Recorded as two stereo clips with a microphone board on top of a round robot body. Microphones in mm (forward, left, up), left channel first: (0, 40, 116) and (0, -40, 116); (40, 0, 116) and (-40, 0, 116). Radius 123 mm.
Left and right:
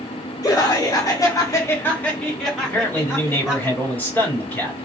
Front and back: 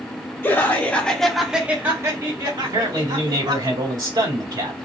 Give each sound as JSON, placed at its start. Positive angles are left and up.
{"t": 0.4, "sound": "laughter", "azimuth_deg": 55, "distance_m": 1.8}
{"t": 2.6, "sound": "a man speaking", "azimuth_deg": 155, "distance_m": 3.0}